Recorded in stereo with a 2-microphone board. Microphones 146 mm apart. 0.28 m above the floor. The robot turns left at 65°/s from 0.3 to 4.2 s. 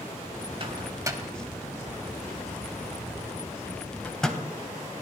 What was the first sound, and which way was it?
A microwave, 40° right (ahead or behind).